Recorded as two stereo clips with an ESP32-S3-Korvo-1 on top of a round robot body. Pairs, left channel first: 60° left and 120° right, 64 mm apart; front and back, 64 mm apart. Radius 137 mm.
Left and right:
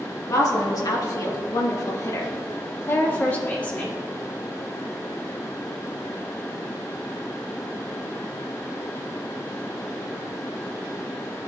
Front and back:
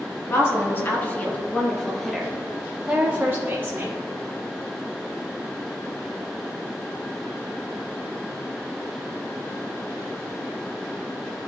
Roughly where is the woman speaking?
Ahead left.